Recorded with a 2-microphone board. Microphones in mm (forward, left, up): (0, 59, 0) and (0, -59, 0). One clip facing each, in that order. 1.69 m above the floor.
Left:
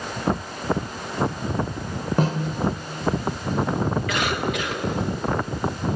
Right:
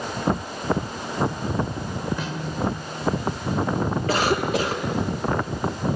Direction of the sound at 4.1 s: 35° right (ahead or behind).